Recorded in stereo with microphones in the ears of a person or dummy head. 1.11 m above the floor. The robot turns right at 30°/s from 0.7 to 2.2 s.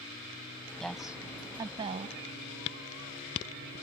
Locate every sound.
0.8 s a woman speaking: straight behind; by 2.2 s 140° right